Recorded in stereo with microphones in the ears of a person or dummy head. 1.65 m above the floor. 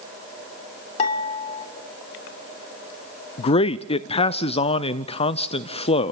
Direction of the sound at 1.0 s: 35° left (ahead or behind).